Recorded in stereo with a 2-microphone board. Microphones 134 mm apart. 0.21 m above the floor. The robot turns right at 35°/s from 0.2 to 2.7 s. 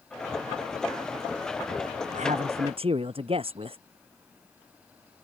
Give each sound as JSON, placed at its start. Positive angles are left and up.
{"t": 2.1, "sound": "a man speaking", "side_deg": -65}